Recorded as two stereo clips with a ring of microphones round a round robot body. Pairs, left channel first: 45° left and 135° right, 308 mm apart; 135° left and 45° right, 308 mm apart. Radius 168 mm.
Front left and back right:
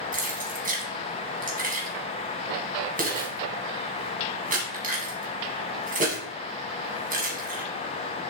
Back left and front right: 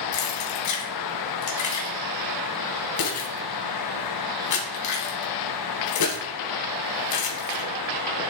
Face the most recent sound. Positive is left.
turn(degrees=160)